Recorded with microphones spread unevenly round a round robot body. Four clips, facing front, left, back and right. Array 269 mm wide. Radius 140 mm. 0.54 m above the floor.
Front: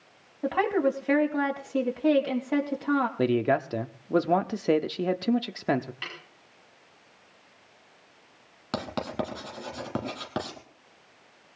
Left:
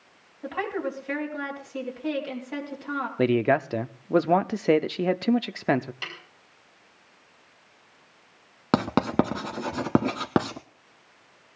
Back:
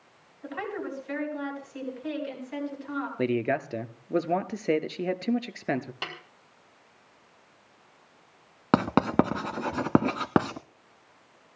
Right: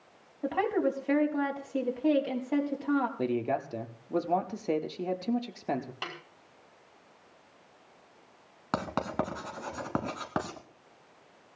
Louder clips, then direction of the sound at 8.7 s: Left 9 dB, back 9 dB; 135° left.